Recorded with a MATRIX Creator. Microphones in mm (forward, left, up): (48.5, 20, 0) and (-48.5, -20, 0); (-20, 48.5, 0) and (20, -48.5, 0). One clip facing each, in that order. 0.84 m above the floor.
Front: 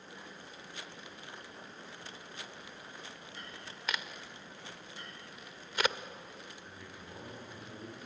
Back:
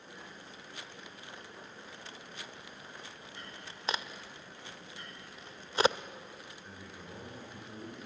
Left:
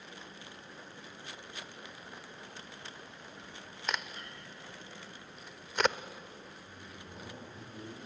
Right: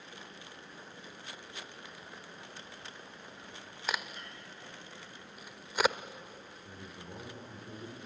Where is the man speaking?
80° right, 8.5 m.